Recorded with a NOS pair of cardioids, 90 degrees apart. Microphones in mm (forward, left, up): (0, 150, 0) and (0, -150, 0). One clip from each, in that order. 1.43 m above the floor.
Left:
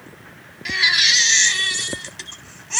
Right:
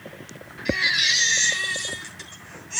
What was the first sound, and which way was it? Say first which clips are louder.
A baby crying: left 5 dB; 55° left.